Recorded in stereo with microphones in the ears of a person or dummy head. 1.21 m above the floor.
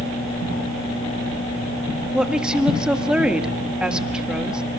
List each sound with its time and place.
2.1 s a woman speaking: 5° right (ahead or behind), 1.7 m